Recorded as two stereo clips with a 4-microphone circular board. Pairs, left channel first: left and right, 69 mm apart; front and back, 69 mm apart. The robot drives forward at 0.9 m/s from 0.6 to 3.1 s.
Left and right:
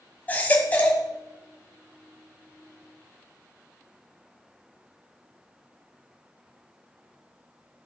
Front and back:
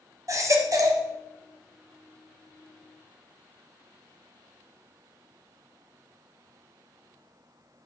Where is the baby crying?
150° left, 1.3 m; by 1.0 s 160° left, 1.6 m.